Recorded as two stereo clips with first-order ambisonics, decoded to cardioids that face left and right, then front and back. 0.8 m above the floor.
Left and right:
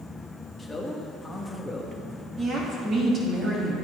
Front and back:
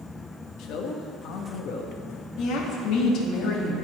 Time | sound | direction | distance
0.6 | a man speaking | 5° left | 0.9 m
2.4 | a woman speaking | 30° right | 1.5 m